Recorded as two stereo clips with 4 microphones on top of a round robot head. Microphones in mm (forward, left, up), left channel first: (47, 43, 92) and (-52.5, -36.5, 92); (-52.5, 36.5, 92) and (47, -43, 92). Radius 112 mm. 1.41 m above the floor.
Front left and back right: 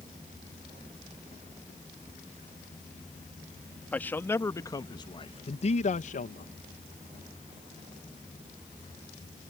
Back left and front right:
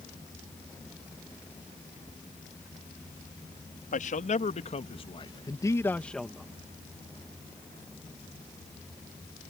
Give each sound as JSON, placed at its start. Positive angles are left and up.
{"t": 3.9, "sound": "a man speaking", "azimuth_deg": 115}